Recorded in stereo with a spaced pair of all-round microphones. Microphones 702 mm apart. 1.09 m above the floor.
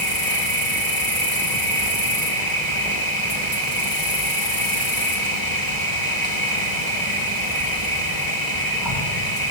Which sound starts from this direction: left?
An insect, at 0.0 s.